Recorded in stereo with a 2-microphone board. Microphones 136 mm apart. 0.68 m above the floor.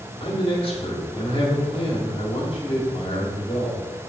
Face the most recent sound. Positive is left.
turn(degrees=40)  # may be behind; listen again after turning